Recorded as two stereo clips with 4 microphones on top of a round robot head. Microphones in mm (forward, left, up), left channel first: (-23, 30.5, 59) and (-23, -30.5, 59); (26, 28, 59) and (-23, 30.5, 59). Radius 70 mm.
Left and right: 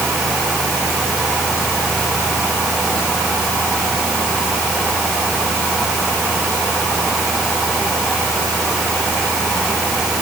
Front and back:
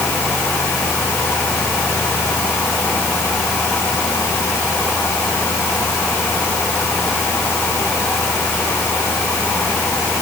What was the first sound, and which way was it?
Only background noise.